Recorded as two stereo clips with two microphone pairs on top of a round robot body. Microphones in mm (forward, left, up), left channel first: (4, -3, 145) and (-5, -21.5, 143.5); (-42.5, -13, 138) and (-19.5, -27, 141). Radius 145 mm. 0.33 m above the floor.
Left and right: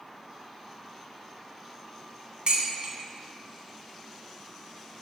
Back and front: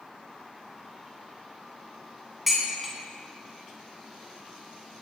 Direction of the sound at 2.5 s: 115° right.